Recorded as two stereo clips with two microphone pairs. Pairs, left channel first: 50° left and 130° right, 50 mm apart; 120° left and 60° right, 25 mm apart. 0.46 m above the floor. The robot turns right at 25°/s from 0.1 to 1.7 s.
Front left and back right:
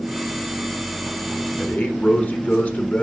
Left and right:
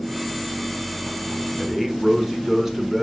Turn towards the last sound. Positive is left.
turn(degrees=10)